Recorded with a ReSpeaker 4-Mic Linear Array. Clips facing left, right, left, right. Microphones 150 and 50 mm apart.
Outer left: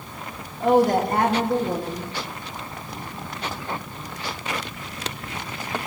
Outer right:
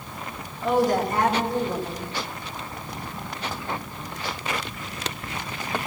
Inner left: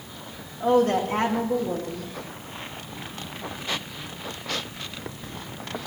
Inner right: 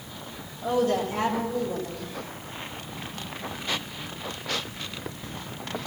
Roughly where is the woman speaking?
Left.